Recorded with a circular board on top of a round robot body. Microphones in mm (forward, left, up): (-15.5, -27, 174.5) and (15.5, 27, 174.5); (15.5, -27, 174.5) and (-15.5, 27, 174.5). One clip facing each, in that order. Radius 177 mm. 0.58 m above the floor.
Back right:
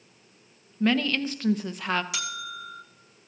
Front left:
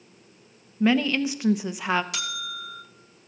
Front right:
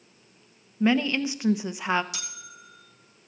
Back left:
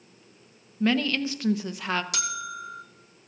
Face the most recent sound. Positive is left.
turn(degrees=150)